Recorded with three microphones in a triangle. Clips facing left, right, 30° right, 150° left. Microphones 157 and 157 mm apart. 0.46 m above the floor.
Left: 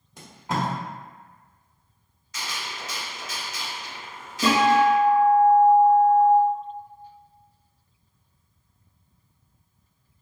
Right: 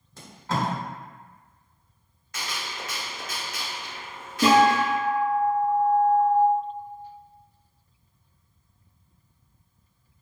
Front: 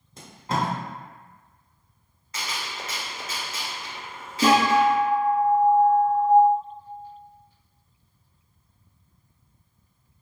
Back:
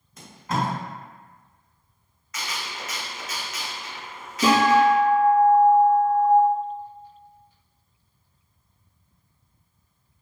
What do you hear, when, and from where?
0.2 s tape being pulled: 20° left, 1.0 m
2.3 s a gunshot: 85° right, 0.6 m
4.4 s a guitar: 75° right, 1.7 m